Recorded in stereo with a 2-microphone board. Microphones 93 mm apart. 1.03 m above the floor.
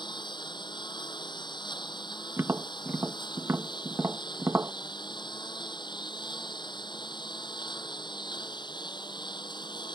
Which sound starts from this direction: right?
Tapping, at 2.4 s.